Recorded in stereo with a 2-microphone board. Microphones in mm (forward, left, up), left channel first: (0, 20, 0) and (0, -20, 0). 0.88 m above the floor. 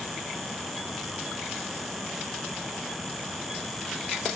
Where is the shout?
No shout in this recording.